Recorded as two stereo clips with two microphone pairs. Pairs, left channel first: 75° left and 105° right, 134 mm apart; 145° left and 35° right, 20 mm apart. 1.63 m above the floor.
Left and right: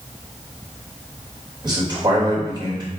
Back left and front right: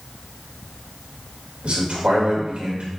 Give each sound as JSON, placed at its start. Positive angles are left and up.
{"t": 1.6, "sound": "a man speaking", "azimuth_deg": -45, "distance_m": 3.0}